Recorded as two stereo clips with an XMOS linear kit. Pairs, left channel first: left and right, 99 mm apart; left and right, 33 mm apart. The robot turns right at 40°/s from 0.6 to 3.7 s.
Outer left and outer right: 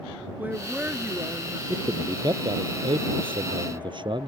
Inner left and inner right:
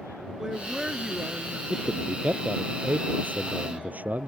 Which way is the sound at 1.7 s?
150° right.